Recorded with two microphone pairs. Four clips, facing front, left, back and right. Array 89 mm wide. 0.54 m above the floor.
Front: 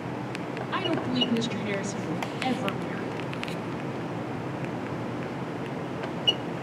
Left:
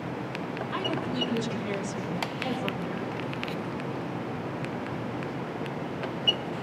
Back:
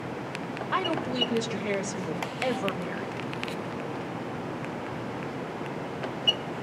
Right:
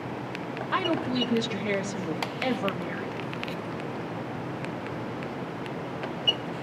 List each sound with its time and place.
0.7 s a woman speaking: 140° right, 1.9 m